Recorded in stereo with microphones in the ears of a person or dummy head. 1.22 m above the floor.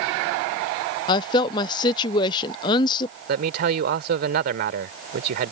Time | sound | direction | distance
1.1 | a woman speaking | 25° left (ahead or behind) | ?
3.3 | a man speaking | 60° right (ahead or behind) | ?